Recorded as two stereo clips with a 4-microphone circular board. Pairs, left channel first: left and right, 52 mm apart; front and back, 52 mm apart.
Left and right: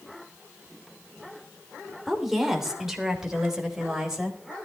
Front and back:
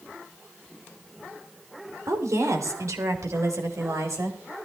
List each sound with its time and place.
2.1 s a woman speaking: 175° right, 3 m; by 4.4 s 165° right, 4.5 m